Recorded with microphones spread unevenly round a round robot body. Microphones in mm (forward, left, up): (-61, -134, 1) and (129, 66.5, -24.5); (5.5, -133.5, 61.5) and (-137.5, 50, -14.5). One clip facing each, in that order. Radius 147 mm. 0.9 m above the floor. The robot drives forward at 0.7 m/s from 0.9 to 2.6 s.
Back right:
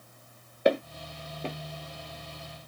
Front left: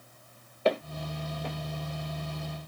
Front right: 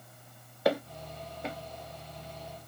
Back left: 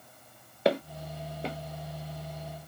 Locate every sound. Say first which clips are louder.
0.7 s footsteps: back right 3 dB, back left 2 dB; 155° right, 0.9 m; by 1.6 s 170° right, 1.1 m